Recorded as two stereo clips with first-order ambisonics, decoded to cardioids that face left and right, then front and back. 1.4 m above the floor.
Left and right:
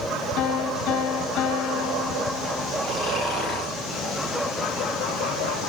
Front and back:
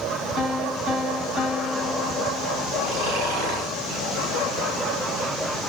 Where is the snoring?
170° left, 5.5 m.